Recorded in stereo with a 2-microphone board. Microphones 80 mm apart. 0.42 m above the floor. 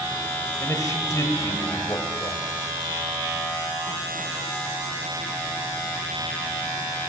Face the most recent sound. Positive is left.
turn(degrees=40)  # may be behind; listen again after turning